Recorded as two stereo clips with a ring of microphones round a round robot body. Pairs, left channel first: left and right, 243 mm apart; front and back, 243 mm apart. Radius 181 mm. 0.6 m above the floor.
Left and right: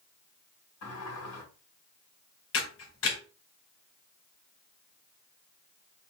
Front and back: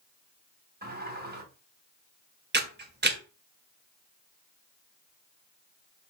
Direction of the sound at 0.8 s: 130° left.